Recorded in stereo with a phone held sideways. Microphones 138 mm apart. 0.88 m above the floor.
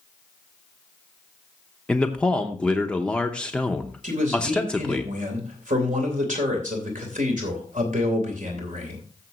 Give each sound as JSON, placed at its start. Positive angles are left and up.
{"t": 1.9, "sound": "a man speaking", "side_deg": 5, "distance_m": 0.8}
{"t": 4.0, "sound": "a man speaking", "side_deg": -70, "distance_m": 3.0}